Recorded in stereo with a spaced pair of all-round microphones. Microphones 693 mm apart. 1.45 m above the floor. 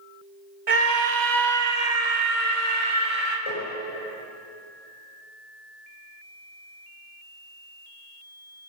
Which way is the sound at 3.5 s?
45° left (ahead or behind).